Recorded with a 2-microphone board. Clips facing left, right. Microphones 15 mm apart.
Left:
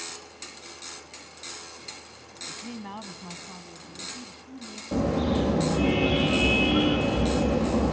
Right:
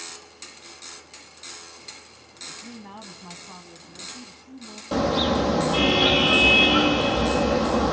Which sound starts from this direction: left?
A woman speaking, at 2.5 s.